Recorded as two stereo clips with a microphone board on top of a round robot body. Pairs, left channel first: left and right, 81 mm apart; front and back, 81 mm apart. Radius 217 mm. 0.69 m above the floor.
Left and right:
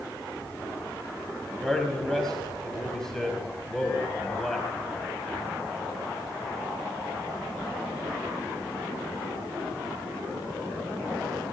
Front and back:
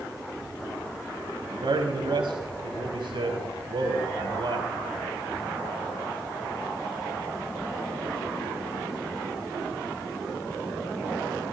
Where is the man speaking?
175° left, 4.5 m.